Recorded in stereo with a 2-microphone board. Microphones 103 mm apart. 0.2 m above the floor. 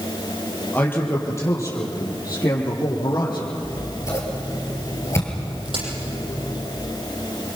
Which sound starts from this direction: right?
A crack, at 5.7 s.